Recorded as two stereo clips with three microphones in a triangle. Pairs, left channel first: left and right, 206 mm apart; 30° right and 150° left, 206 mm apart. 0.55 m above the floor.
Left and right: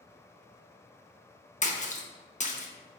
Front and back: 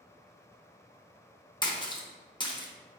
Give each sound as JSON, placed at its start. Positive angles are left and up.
{"t": 1.6, "sound": "a splash", "azimuth_deg": 35, "distance_m": 0.6}